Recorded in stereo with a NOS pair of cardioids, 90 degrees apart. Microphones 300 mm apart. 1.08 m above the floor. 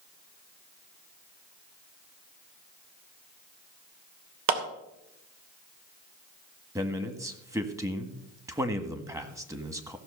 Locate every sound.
4.5 s a clap: 65° right, 2.5 m
6.8 s a man speaking: 10° right, 1.9 m